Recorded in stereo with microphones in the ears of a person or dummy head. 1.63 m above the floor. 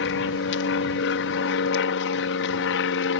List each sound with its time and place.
0.0 s an aircraft: 65° left (ahead or behind)